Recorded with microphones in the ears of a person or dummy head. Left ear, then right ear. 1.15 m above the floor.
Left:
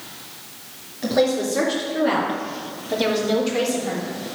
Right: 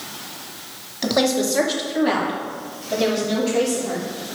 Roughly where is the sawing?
I don't hear sawing.